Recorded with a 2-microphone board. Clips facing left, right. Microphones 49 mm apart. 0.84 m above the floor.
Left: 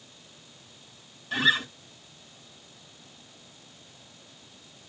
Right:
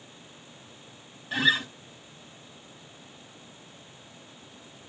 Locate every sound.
1.3 s a guitar: 10° right (ahead or behind), 3.5 m